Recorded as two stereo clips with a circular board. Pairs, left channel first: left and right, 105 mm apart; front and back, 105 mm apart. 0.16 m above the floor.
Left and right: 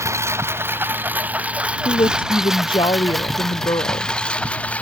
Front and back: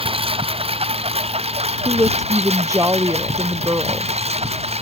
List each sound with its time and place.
0.0 s a lawn mower: 150° right; by 4.8 s 170° left
1.9 s a woman speaking: 125° left